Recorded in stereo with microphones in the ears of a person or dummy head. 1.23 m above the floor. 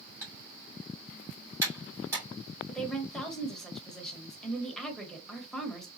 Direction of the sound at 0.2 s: 10° right (ahead or behind).